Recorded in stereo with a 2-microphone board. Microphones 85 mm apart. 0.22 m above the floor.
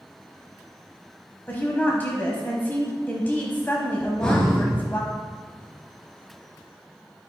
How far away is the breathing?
About 2 m.